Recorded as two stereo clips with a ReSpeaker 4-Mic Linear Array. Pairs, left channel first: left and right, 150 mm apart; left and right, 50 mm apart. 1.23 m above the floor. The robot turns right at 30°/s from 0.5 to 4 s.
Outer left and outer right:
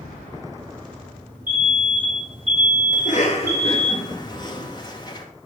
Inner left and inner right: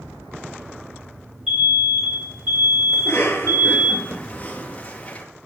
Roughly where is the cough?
Left.